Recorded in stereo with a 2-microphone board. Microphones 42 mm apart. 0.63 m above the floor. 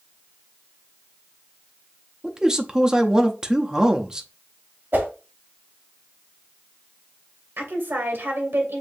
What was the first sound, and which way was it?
A man speaking, 20° right (ahead or behind).